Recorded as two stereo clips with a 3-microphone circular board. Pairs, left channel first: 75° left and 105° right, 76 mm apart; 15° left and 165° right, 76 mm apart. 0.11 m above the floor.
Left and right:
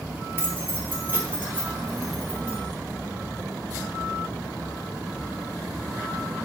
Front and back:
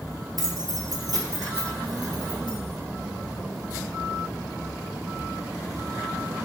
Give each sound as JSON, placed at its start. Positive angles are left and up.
{"t": 0.4, "sound": "keys jangling", "azimuth_deg": -160, "distance_m": 1.8}